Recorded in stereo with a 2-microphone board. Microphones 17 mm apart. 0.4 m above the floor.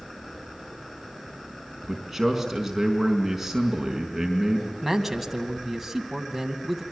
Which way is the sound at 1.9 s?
15° right (ahead or behind).